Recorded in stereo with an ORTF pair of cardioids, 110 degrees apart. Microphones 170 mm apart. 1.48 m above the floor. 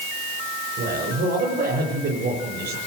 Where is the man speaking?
70° right, 6.5 m.